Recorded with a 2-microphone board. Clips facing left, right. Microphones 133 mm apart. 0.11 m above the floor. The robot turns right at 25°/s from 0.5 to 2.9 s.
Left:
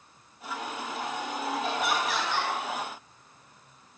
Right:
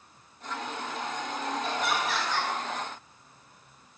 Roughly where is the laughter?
Centre.